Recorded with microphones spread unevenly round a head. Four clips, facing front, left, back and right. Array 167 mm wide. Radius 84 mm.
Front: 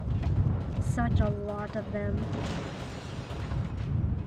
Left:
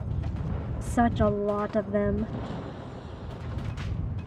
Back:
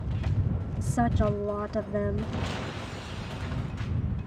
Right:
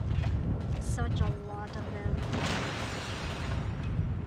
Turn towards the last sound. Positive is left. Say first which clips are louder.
# left 16 dB, back 4 dB
turn(degrees=105)